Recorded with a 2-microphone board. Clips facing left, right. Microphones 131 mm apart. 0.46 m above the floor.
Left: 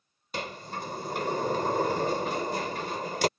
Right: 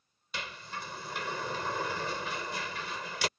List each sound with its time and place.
0.3 s a sliding door: 45° left (ahead or behind)